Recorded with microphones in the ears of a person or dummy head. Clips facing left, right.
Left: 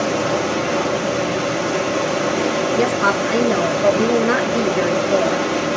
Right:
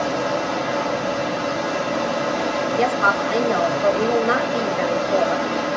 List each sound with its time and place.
0.0 s running water: 40° left (ahead or behind), 0.8 m
2.8 s a woman speaking: 30° left (ahead or behind), 1.3 m